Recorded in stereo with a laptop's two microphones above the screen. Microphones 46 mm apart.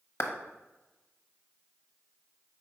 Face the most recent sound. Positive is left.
turn(degrees=55)  # may be behind; listen again after turning